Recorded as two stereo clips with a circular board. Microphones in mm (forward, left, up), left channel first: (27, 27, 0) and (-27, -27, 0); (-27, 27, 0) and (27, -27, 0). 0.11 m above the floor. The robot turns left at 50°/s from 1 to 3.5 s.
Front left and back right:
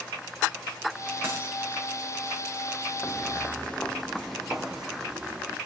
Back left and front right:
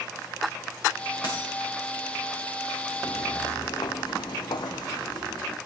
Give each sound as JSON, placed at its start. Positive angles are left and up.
{"t": 1.2, "sound": "a dropped coin", "azimuth_deg": 170, "distance_m": 5.5}
{"t": 3.0, "sound": "footsteps", "azimuth_deg": 125, "distance_m": 0.7}